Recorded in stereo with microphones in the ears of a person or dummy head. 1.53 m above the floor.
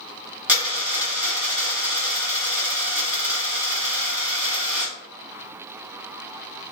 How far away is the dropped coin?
About 1.5 m.